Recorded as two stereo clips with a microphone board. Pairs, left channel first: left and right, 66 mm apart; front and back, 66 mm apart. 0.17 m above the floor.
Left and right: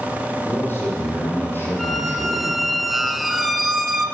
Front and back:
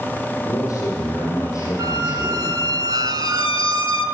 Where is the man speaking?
35° left, 5.5 m.